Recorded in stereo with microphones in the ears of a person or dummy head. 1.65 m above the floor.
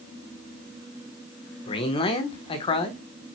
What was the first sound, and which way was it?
A man speaking, 30° left (ahead or behind).